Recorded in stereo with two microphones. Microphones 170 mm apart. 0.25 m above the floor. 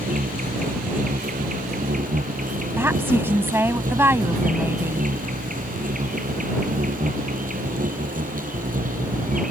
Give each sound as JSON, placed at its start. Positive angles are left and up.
{"t": 0.0, "sound": "an insect", "side_deg": -55}
{"t": 2.8, "sound": "a woman speaking", "side_deg": -15}